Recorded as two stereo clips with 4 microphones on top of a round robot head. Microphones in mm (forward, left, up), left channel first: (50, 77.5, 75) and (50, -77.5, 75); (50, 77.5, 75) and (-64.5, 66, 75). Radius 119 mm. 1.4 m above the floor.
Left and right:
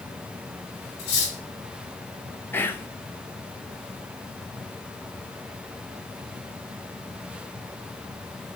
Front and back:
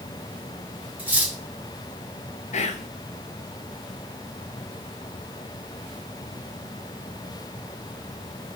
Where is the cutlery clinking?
110° left, 1.4 m.